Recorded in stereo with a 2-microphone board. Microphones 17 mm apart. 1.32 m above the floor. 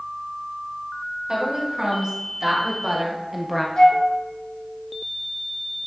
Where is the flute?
60° left (ahead or behind), 1.3 m.